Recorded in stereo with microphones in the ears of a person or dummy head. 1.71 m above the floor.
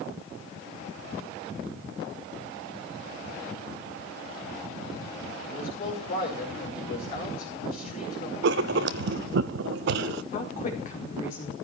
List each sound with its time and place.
5.5 s a man speaking: 55° left (ahead or behind), 8.5 m
8.4 s writing: 60° right (ahead or behind), 0.6 m
10.3 s a woman speaking: 55° left (ahead or behind), 4.5 m